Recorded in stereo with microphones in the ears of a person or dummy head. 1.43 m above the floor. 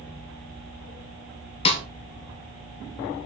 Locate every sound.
1.6 s a snare drum: 30° left (ahead or behind), 1.4 m